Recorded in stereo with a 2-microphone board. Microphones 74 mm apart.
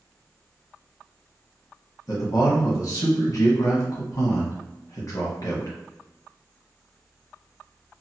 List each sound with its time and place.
2.1 s a man speaking: 50° left (ahead or behind), 1.2 m